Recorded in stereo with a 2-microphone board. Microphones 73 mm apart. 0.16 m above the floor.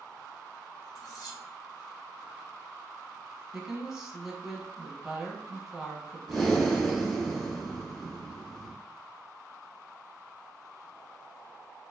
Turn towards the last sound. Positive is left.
turn(degrees=5)  # may be behind; listen again after turning